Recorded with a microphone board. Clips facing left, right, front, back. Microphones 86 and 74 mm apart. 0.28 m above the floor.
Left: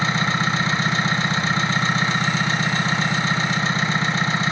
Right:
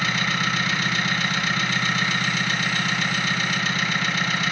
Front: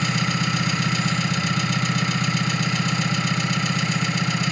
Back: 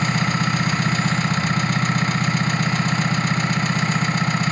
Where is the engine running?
145° left, 1.4 m.